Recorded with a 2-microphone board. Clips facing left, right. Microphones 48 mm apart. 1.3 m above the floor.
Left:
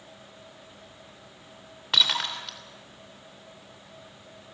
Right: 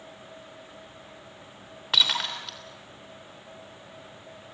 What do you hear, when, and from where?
1.9 s breaking glass: centre (ahead or behind), 3 m